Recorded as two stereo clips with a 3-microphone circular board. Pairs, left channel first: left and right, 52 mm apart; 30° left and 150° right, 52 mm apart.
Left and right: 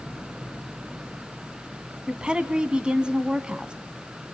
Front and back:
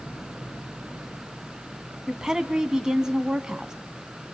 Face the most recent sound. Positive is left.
turn(degrees=-100)